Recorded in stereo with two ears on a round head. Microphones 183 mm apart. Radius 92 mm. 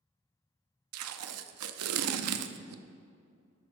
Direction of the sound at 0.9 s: 80° right.